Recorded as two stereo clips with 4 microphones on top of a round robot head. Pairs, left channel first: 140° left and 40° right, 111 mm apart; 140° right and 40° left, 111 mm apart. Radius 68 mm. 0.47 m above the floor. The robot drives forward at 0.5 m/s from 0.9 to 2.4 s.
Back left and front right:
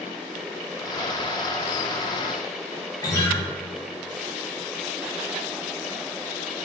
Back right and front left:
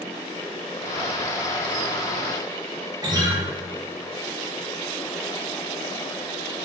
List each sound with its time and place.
3.0 s a guitar: 90° left, 0.7 m